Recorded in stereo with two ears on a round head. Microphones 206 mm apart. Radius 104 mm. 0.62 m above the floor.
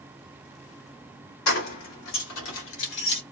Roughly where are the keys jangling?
Left.